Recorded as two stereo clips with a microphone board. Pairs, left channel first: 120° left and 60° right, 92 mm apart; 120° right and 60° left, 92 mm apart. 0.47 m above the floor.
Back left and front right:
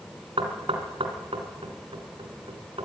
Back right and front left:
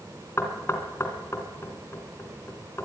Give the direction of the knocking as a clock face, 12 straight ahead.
2 o'clock.